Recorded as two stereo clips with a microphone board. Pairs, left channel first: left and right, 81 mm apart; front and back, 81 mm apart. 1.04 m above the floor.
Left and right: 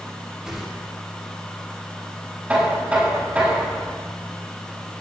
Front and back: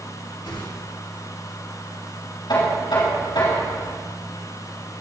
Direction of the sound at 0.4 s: 10° right.